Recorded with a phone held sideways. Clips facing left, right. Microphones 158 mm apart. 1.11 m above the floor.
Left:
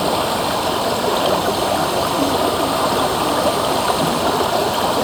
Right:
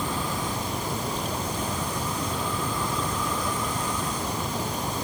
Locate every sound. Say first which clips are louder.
0.0 s running water: left 11 dB; 80° left